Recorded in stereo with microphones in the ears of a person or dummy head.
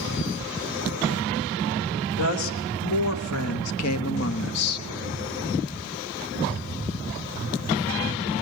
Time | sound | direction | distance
2.1 | a woman speaking | 75° left (ahead or behind) | 4 m